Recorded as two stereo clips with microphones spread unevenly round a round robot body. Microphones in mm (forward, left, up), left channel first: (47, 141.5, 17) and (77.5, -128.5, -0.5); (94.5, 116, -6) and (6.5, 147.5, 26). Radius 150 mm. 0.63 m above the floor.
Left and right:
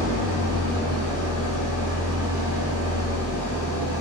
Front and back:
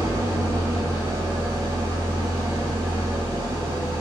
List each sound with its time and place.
0.0 s an engine running: 160° right, 0.8 m